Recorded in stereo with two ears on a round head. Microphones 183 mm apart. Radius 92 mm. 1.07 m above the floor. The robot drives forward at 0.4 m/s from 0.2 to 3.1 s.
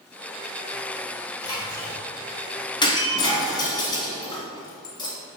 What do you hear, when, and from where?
1.4 s a splash: 20° left (ahead or behind), 2 m
2.8 s breaking glass: 25° left (ahead or behind), 1.7 m; by 5.2 s 20° left (ahead or behind), 1.8 m